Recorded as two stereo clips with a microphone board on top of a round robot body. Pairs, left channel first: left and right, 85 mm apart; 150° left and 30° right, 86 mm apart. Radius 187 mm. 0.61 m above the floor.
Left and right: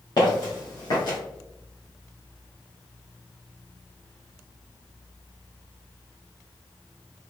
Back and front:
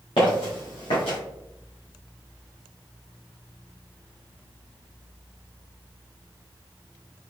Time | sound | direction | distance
0.2 | footsteps | 130° left | 0.6 m